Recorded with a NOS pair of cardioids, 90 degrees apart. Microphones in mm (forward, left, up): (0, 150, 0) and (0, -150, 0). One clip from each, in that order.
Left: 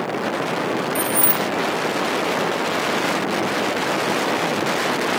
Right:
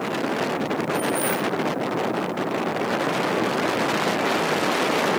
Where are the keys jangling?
60° left, 1.6 m.